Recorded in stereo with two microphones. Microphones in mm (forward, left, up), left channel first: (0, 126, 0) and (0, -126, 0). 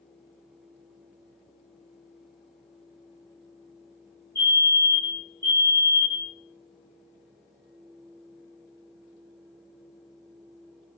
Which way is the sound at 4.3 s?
15° right (ahead or behind).